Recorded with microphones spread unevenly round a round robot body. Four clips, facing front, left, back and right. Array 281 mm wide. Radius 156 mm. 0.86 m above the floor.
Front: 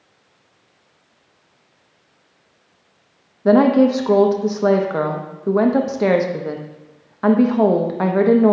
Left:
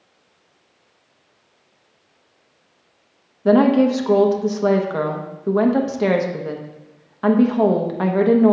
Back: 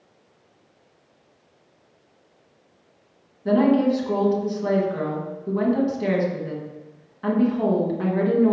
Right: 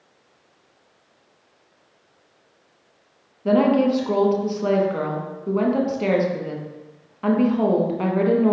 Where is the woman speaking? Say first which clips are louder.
Left 3 dB, front 5 dB; 25° left, 1.2 m.